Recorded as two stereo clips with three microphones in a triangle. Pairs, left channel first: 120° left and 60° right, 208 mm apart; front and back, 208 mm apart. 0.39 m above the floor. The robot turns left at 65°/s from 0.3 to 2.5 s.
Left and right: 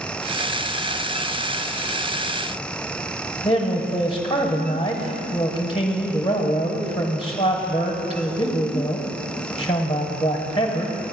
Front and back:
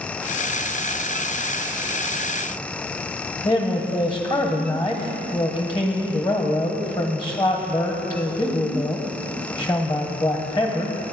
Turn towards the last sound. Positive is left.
turn(degrees=60)